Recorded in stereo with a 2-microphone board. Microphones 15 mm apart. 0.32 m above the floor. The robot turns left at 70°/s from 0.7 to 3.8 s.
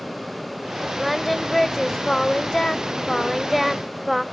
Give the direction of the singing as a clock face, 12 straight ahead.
6 o'clock.